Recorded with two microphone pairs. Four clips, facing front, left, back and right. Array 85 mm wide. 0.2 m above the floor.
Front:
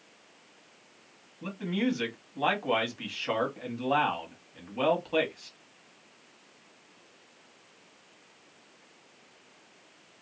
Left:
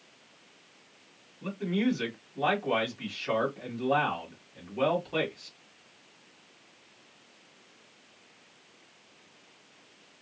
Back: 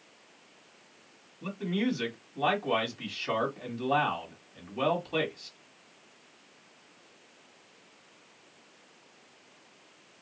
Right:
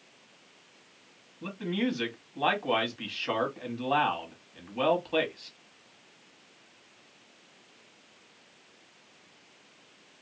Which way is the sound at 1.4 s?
65° right.